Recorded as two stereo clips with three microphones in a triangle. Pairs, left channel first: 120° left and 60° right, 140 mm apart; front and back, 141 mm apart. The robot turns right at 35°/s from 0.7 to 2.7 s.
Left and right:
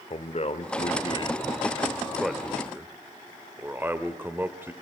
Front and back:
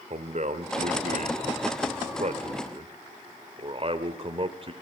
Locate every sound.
0.1 s a man speaking: 155° left, 1.6 m; by 4.7 s 135° right, 1.6 m